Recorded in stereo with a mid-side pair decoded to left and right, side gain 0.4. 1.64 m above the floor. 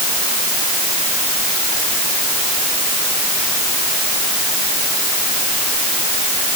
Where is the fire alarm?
I don't hear a fire alarm.